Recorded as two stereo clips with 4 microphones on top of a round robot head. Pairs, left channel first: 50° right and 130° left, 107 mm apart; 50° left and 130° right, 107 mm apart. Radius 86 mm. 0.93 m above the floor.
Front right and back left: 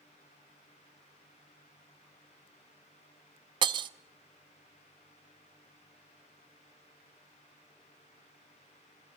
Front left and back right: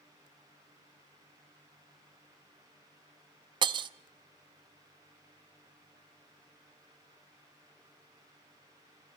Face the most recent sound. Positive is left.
turn(degrees=180)